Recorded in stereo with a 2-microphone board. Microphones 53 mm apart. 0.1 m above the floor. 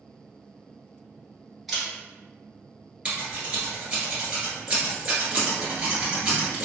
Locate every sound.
1.7 s a camera shutter: centre (ahead or behind), 1.1 m
3.0 s scissors: 20° right (ahead or behind), 1.5 m